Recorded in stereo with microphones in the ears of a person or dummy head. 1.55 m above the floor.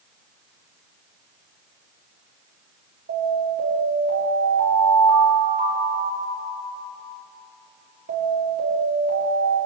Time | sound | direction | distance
3.1 | an alarm | 45° right (ahead or behind) | 5.5 m